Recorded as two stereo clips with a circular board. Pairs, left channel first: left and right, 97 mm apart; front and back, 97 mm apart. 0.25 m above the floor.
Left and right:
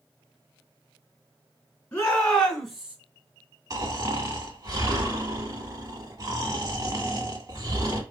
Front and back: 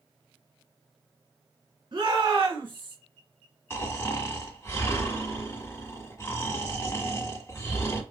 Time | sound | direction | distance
1.9 | a shout | 160° left | 3 m
3.7 | snoring | 55° right | 1.7 m